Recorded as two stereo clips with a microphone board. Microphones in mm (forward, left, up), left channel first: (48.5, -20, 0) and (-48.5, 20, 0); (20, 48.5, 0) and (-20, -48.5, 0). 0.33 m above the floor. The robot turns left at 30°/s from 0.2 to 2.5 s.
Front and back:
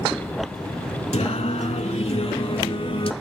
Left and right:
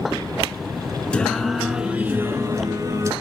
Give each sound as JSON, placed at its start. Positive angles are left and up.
{"t": 1.1, "sound": "singing", "azimuth_deg": -10, "distance_m": 0.7}